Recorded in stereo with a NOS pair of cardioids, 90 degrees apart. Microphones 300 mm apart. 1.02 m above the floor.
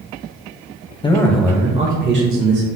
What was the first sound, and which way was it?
A man speaking, 15° left.